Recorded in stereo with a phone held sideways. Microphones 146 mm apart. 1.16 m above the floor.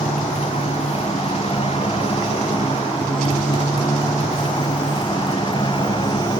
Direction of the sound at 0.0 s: 45° left (ahead or behind).